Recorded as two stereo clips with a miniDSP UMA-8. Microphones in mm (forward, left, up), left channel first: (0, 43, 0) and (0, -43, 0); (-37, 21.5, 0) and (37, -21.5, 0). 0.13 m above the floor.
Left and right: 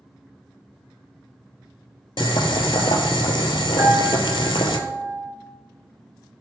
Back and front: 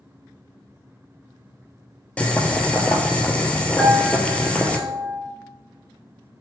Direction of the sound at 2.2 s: 75° left.